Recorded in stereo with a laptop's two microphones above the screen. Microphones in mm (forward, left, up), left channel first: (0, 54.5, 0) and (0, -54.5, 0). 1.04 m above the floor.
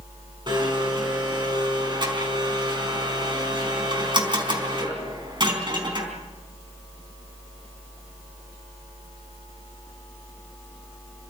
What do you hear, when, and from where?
0.5 s a blender: 45° right (ahead or behind), 4 m